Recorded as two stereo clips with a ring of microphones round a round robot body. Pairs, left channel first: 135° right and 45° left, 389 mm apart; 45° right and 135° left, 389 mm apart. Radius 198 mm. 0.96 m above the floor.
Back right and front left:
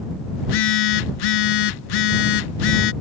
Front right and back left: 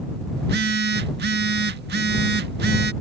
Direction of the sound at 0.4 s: 160° right.